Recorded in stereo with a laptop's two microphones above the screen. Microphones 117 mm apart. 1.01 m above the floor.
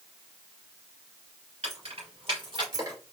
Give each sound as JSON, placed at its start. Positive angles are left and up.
{"t": 1.6, "sound": "keys jangling", "side_deg": -65, "distance_m": 3.0}